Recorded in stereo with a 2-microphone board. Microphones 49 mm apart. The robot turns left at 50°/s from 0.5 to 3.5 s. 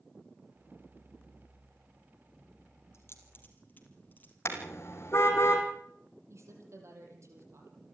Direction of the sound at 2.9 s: 60° left (ahead or behind).